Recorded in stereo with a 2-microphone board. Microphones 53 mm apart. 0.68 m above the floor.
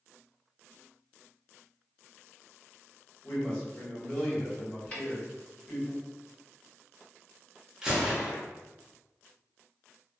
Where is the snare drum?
25° left (ahead or behind), 2.0 m.